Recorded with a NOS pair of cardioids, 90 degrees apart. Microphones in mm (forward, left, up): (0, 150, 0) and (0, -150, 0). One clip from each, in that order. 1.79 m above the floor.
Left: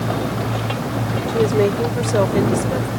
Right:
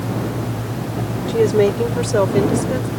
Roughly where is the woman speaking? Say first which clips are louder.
Right 2 dB; ahead right.